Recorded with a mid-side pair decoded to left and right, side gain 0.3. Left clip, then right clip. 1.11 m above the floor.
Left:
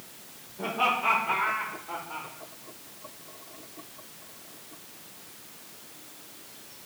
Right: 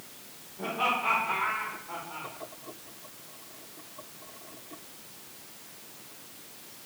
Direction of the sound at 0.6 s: 30° left.